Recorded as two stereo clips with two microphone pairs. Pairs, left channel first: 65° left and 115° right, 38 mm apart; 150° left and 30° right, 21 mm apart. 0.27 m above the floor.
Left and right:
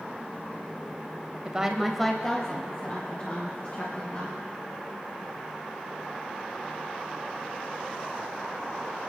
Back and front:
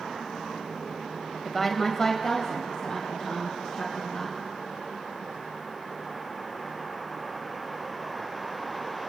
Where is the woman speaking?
115° right, 1.0 m; by 4.4 s 100° left, 3 m.